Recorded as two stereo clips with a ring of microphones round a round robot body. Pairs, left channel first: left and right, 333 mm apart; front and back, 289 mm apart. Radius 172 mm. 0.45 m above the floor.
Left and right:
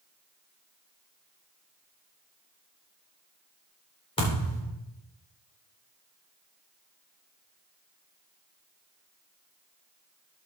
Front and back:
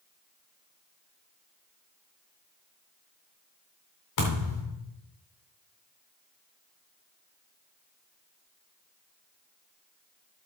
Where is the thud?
15° left, 4 m.